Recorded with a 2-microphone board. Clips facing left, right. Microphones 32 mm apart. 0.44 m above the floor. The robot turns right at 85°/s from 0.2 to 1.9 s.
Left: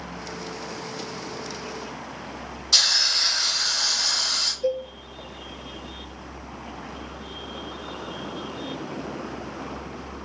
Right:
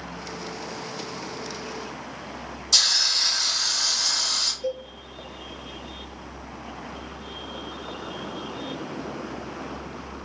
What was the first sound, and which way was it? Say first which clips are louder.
A hiss: left 1 dB; 25° left (ahead or behind).